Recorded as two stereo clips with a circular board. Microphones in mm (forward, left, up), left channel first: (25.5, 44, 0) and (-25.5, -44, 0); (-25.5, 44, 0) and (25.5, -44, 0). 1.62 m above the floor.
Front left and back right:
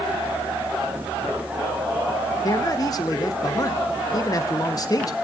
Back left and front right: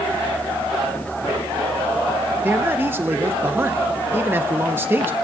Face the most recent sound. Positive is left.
turn(degrees=10)